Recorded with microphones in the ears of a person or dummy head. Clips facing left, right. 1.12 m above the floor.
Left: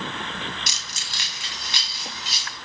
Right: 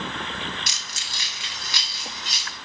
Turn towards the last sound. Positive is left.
turn(degrees=5)  # may be behind; listen again after turning